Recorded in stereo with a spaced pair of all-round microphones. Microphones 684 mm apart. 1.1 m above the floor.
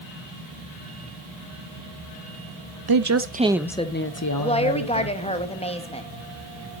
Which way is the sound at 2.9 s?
35° right (ahead or behind).